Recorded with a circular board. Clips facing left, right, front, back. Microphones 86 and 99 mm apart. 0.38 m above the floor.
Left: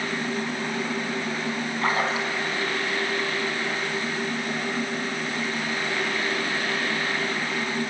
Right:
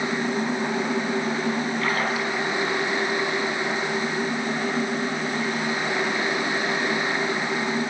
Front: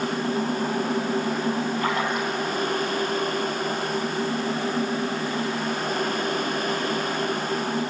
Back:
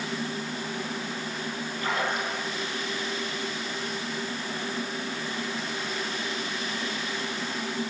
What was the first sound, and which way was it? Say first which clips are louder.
A splash: even, front 4 dB; 30° left.